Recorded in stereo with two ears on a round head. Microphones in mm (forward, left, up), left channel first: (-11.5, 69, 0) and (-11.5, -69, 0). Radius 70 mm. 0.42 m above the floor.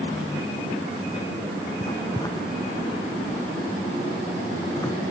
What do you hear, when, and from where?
1.8 s writing: 25° left (ahead or behind)